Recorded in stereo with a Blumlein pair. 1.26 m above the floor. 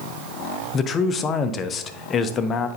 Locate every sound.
0.7 s a man speaking: 25° left, 0.7 m